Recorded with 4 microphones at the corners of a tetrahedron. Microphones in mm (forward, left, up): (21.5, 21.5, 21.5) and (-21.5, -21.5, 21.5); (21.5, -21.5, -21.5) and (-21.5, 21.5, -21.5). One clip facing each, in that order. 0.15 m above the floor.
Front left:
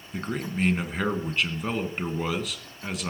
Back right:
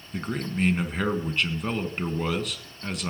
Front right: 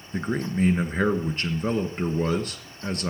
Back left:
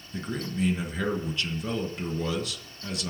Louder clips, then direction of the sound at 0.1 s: Back right 1 dB, front right 5 dB; 45° right.